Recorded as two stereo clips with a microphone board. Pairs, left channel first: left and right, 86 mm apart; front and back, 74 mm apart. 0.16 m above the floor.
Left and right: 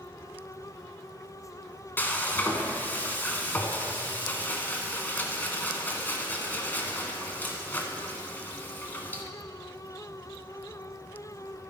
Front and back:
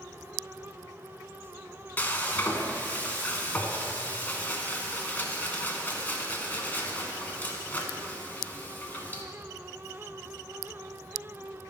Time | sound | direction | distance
2.0 | frying | 45° left | 1.3 m